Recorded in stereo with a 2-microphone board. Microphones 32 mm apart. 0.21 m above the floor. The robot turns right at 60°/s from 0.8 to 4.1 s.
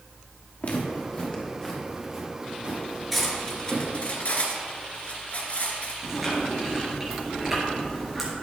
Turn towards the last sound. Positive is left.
turn(degrees=-10)  # may be behind; listen again after turning